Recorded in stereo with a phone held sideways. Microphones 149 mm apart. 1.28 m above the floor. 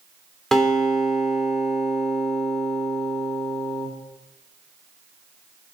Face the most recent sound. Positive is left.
turn(degrees=0)  # may be behind; listen again after turning